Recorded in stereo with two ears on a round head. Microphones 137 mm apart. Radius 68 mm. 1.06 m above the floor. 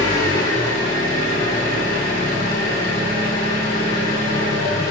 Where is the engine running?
60° left (ahead or behind), 3.5 m.